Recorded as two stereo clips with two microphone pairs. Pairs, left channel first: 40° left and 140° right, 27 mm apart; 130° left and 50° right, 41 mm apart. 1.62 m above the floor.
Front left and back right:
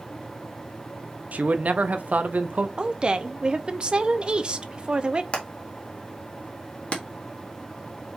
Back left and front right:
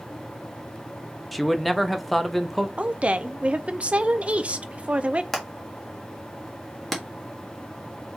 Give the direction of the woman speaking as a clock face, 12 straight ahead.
3 o'clock.